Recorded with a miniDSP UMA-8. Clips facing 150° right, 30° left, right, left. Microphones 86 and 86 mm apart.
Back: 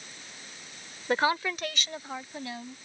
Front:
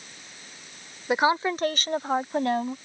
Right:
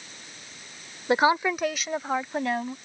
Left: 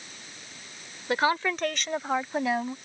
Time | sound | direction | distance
1.1 | a woman speaking | 45° right | ?